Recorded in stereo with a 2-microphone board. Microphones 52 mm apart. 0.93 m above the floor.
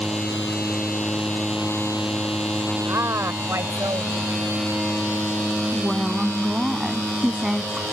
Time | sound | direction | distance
2.9 | a woman speaking | 65° right (ahead or behind) | ?
5.7 | a woman speaking | 10° right (ahead or behind) | ?